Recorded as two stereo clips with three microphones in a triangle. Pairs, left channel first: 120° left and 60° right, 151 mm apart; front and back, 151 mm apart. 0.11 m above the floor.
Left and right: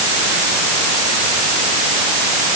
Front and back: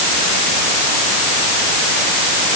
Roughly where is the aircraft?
I don't hear an aircraft.